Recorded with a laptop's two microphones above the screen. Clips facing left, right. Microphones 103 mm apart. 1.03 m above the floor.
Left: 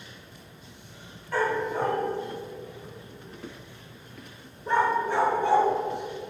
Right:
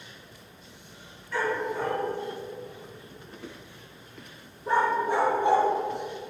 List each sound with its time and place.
1.3 s a dog barking: 50° left (ahead or behind), 1.7 m; by 5.7 s 20° right (ahead or behind), 1.6 m